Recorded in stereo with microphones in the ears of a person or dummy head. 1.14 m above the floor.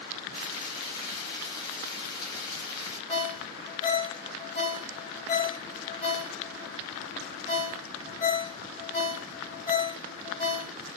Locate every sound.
0.3 s frying: 35° left (ahead or behind), 2.5 m
3.1 s a ringtone: 30° left (ahead or behind), 1.9 m